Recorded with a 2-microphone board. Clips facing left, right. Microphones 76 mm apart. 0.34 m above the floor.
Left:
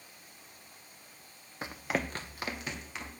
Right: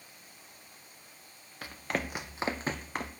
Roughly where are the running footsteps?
Left.